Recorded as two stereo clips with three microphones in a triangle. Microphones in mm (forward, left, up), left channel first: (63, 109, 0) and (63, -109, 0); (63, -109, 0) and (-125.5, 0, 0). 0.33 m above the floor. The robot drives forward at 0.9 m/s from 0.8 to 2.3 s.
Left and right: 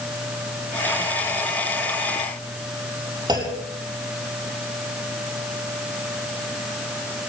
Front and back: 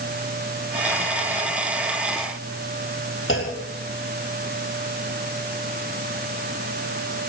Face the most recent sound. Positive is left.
turn(degrees=-20)